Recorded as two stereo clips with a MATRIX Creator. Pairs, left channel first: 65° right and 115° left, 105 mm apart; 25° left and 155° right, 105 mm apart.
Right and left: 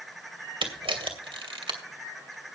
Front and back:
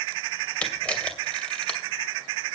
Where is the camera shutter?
100° left, 2.5 m.